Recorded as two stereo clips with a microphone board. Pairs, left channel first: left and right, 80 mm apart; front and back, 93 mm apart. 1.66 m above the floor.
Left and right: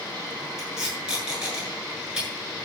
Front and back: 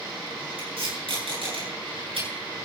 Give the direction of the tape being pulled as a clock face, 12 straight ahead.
6 o'clock.